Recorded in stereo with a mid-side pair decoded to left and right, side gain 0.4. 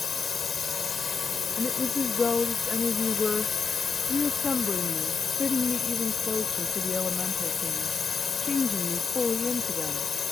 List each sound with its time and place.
0.0 s a drone: 50° left
1.6 s a woman speaking: 40° left